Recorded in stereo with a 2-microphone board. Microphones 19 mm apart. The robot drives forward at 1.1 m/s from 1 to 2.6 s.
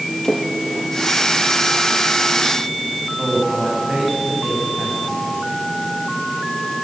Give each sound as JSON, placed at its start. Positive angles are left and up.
{"t": 0.2, "sound": "a splash", "side_deg": 25, "distance_m": 4.0}
{"t": 3.2, "sound": "a man speaking", "side_deg": -75, "distance_m": 8.5}